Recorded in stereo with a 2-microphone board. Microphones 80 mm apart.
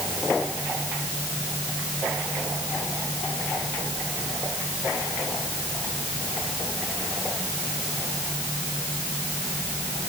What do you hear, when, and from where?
Only background noise.